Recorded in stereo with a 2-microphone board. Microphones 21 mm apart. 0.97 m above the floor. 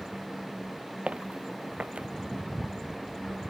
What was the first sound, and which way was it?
Footsteps, 70° right (ahead or behind).